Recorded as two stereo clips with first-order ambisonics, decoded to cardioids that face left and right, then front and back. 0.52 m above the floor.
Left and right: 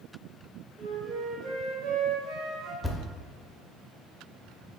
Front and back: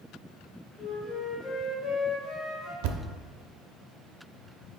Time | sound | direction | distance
0.8 | a flute | 40° right | 1.4 m
2.8 | a thud | straight behind | 0.5 m